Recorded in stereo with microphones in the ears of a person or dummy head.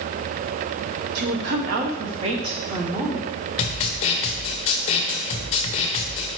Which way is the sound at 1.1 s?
60° right (ahead or behind).